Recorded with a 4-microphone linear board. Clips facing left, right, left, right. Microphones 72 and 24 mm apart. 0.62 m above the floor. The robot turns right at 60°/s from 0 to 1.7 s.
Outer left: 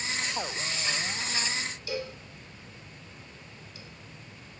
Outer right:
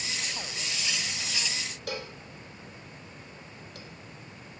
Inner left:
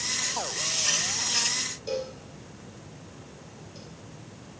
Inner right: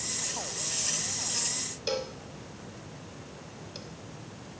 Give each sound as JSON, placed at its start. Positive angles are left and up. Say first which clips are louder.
{"t": 1.9, "sound": "a cowbell", "louder": "even, even", "side_deg": -65, "distance_m": 1.0}